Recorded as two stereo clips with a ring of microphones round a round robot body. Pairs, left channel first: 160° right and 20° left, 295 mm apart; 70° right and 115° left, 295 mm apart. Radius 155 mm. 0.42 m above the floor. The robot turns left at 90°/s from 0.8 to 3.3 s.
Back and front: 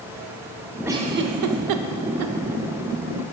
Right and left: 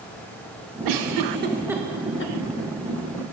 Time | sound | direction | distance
0.8 | a giggle | 105° left | 0.5 m